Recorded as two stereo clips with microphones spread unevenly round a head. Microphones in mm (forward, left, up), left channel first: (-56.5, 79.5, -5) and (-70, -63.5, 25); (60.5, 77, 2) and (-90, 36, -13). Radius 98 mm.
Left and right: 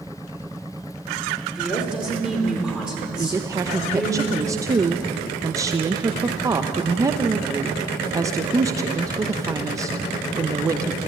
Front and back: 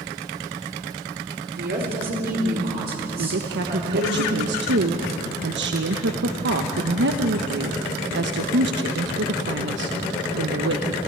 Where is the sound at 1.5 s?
Straight behind, 4 m.